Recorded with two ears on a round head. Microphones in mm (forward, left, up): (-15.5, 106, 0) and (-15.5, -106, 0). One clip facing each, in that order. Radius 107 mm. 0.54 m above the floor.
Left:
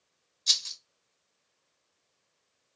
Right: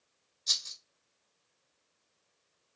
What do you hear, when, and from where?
0.5 s a rattle: 50° left (ahead or behind), 2 m